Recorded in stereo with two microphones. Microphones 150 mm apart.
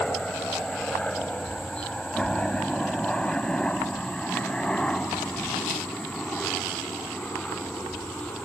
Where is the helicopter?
5° left (ahead or behind).